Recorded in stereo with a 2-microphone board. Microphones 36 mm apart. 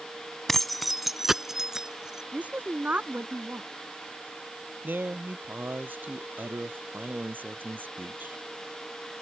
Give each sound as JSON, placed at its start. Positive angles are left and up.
{"t": 0.5, "sound": "keys jangling", "side_deg": 10}
{"t": 2.3, "sound": "a woman speaking", "side_deg": -45}
{"t": 4.8, "sound": "a man speaking", "side_deg": -60}